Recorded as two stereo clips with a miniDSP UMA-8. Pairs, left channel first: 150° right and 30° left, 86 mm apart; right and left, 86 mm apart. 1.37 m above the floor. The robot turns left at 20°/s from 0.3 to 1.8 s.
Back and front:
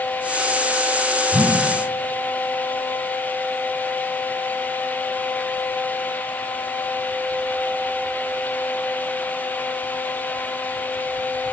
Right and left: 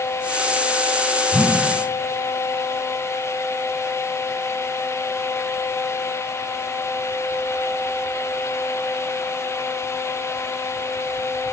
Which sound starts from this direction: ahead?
A whoosh, at 1.3 s.